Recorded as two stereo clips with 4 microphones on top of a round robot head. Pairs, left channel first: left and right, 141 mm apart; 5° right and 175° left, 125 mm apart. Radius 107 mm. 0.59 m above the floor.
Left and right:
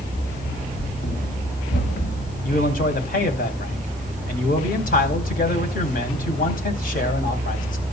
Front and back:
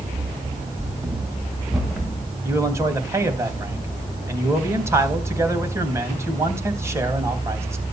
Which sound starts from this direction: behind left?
Running footsteps, at 0.1 s.